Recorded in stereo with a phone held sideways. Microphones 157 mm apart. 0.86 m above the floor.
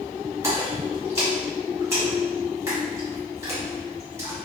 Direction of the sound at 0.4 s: 20° right (ahead or behind).